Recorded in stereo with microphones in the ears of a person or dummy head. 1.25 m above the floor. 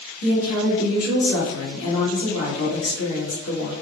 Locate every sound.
0.2 s a woman speaking: 85° left, 1.7 m